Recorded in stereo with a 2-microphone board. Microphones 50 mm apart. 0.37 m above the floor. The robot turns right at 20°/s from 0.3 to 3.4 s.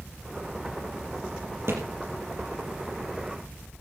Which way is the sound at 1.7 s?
55° right (ahead or behind).